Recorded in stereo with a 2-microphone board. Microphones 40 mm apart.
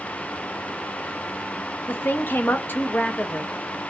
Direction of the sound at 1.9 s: 55° left (ahead or behind).